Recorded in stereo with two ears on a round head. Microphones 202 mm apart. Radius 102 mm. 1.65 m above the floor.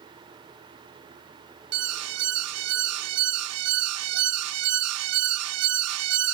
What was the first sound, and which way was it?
An alarm, 70° right (ahead or behind).